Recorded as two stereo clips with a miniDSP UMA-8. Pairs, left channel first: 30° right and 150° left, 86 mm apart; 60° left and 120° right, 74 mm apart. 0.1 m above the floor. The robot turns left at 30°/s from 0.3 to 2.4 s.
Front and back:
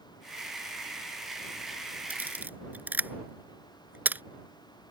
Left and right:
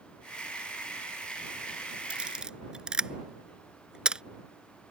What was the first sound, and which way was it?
A camera shutter, 170° right.